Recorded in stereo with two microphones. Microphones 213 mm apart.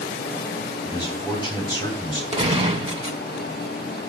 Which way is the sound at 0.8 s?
20° left (ahead or behind).